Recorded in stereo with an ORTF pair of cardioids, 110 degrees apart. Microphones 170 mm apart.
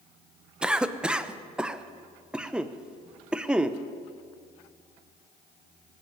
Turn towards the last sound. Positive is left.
turn(degrees=-5)